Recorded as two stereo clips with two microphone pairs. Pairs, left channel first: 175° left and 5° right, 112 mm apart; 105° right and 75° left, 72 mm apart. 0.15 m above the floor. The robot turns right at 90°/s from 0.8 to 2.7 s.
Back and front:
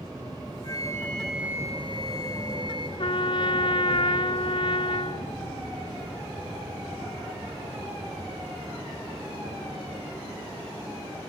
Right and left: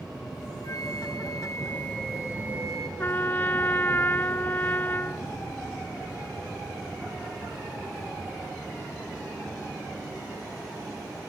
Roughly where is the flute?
Behind right.